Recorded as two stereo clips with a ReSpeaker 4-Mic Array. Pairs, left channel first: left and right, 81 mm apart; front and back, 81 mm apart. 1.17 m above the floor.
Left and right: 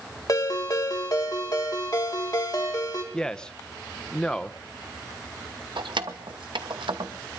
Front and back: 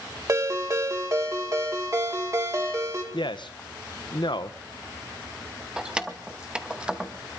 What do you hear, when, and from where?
0.3 s a ringtone: 130° left, 2.5 m
3.1 s a man speaking: 10° left, 0.7 m
5.8 s keys jangling: 100° right, 1.0 m